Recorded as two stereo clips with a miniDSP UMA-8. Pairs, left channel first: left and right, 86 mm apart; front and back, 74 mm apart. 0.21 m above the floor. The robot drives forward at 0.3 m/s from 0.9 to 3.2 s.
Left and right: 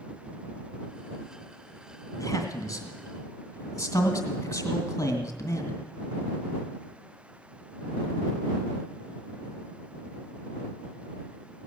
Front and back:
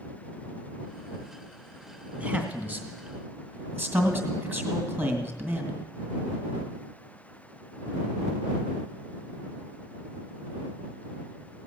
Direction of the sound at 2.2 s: 115° left.